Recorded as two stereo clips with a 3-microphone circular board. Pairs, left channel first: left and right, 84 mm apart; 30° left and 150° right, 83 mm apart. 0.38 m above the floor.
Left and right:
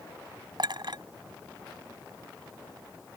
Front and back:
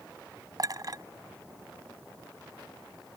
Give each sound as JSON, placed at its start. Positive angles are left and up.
{"t": 0.6, "sound": "a clink", "azimuth_deg": -110}